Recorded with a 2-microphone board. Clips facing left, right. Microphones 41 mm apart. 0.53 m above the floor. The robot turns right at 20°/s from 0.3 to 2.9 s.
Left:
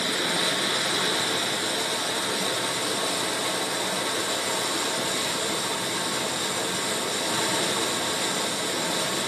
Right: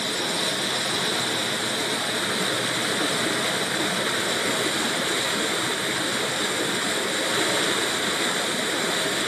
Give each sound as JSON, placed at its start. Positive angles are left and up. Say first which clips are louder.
{"t": 0.0, "sound": "running water", "louder": "left 1 dB", "azimuth_deg": 165, "distance_m": 1.0}